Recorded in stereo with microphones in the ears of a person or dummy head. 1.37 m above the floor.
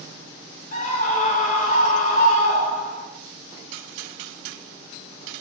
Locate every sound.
0.7 s a scream: 50° left (ahead or behind), 3 m